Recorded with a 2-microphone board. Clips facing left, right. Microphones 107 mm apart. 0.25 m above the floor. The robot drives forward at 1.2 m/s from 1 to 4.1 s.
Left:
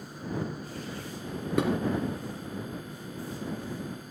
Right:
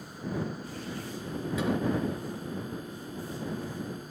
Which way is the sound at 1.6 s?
65° left (ahead or behind).